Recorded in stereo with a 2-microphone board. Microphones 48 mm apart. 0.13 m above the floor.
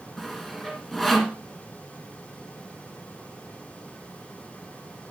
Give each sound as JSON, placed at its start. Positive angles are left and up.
{"t": 0.2, "sound": "sawing", "side_deg": 5, "distance_m": 1.3}